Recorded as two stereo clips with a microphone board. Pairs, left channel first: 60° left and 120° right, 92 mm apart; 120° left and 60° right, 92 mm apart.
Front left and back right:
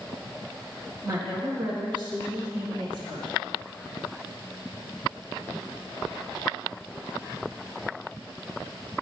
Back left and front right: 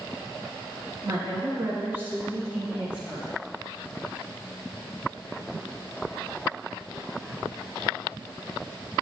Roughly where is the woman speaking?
Right.